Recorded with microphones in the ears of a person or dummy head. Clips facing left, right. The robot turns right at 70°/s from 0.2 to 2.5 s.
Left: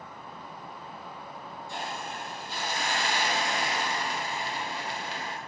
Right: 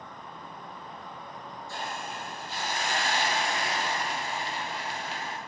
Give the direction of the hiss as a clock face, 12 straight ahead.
11 o'clock.